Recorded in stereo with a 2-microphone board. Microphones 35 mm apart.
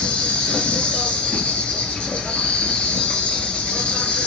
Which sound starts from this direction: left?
An insect, at 0.0 s.